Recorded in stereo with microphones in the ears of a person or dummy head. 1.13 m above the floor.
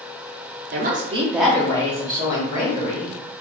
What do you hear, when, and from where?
0.7 s a woman speaking: 50° right (ahead or behind), 0.6 m; by 3.1 s 30° left (ahead or behind), 1.6 m